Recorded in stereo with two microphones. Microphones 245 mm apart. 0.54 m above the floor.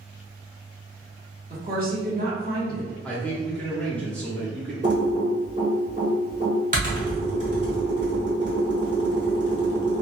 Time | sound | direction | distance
1.5 | a woman speaking | 35° right (ahead or behind) | 1.1 m
3.0 | a man speaking | 5° left (ahead or behind) | 0.6 m
4.8 | typing on a keyboard | 30° right (ahead or behind) | 1.2 m